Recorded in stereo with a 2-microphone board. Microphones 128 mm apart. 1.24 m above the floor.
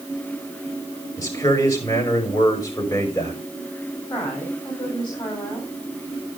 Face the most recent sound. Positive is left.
turn(degrees=40)  # may be behind; listen again after turning